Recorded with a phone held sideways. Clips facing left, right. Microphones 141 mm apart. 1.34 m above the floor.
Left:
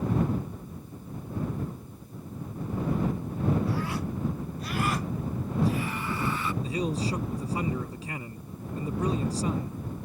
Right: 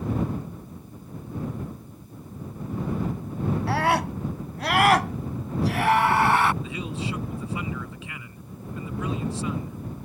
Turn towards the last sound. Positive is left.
turn(degrees=40)  # may be behind; listen again after turning